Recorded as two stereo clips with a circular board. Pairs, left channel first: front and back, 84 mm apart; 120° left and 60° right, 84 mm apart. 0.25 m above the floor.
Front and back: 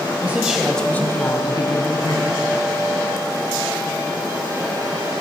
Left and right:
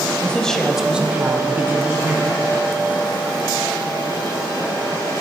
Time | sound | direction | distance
0.2 | a woman speaking | 170° left | 1.0 m